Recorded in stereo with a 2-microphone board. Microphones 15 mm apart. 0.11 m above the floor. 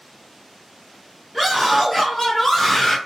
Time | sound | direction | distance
1.3 | a scream | 5° left (ahead or behind) | 1.3 m